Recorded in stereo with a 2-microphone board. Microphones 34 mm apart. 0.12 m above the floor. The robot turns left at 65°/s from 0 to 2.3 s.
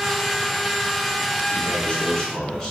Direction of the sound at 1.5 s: 20° left (ahead or behind).